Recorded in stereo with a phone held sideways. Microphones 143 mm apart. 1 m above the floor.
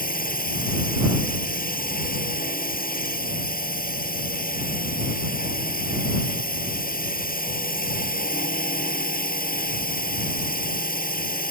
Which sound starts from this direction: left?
A drone, at 0.0 s.